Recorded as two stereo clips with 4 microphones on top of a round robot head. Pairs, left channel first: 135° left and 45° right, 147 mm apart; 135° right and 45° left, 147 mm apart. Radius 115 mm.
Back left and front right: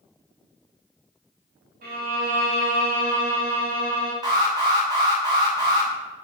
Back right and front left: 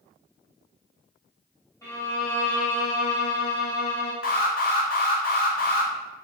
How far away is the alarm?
About 0.7 m.